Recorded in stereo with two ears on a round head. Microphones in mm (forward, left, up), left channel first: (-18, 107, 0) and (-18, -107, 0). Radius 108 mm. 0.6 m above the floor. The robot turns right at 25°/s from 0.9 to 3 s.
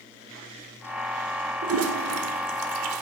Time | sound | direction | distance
1.6 | a toilet flushing | 65° right (ahead or behind) | 0.7 m